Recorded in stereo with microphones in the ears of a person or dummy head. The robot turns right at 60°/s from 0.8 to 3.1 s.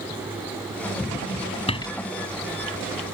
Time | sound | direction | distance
1.7 | a door slam | 25° left (ahead or behind) | ?